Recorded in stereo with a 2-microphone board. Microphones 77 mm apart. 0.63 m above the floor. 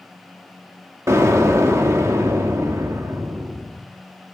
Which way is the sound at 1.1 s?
35° right (ahead or behind).